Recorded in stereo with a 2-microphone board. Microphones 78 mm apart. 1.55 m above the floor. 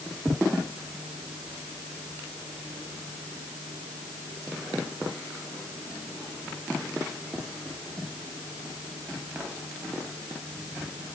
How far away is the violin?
I don't hear a violin.